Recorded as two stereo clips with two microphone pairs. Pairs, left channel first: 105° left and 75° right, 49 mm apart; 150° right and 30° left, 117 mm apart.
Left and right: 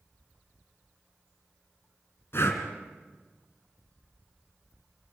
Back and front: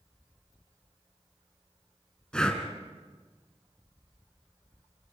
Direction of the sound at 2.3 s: 130° left.